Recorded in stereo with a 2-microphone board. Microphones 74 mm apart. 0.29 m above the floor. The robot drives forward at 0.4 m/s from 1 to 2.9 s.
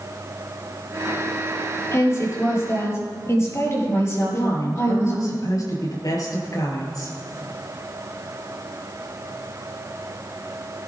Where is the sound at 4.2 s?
60° left (ahead or behind), 5 m.